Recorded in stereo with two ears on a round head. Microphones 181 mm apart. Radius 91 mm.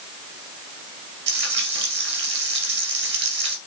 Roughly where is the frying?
Right.